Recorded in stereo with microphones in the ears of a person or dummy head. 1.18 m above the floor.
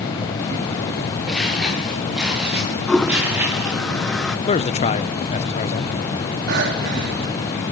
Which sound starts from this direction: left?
A man speaking, at 4.5 s.